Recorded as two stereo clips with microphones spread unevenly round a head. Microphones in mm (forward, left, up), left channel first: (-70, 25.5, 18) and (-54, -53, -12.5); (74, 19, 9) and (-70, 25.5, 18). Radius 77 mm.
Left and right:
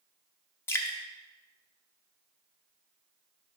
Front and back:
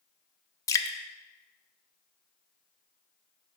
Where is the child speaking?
No child speaking in this recording.